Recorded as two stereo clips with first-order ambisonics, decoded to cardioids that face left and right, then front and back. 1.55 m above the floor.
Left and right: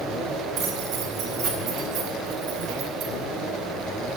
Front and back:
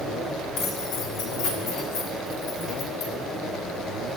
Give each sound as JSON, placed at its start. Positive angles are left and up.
{"t": 0.6, "sound": "keys jangling", "azimuth_deg": -35, "distance_m": 2.5}